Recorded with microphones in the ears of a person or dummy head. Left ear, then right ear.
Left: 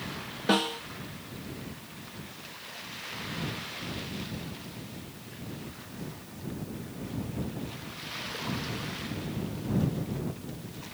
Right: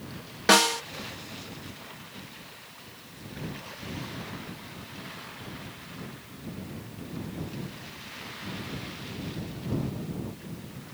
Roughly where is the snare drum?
Right.